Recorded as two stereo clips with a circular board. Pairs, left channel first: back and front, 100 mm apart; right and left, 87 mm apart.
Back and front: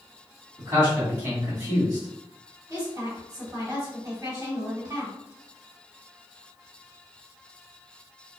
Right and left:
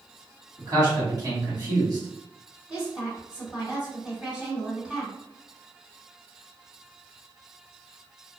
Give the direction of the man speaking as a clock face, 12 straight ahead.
10 o'clock.